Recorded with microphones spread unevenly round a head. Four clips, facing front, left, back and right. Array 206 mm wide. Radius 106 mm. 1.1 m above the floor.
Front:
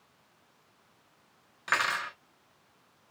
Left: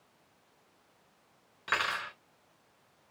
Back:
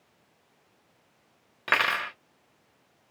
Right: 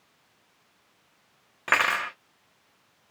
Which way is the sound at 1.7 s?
130° right.